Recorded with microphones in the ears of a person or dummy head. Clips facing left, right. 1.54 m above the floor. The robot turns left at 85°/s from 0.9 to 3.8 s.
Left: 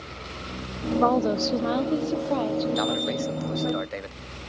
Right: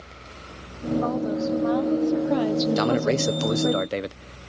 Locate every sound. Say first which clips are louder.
1.0 s a woman speaking: left 5 dB; 100° left; by 3.8 s 135° right
2.8 s a man speaking: right 5 dB; 45° right; by 4.5 s 130° right